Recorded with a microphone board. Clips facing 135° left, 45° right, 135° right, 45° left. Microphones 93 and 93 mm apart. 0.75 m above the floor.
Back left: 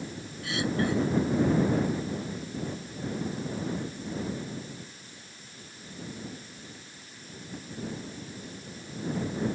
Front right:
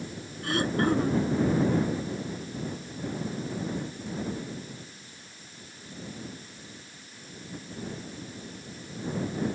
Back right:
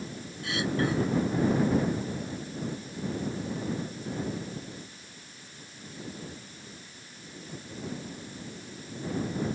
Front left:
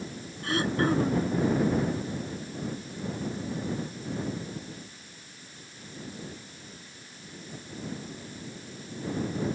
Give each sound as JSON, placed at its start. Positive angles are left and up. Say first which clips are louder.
{"t": 0.4, "sound": "throat clearing", "louder": "front right 3 dB, front left 3 dB", "azimuth_deg": -5}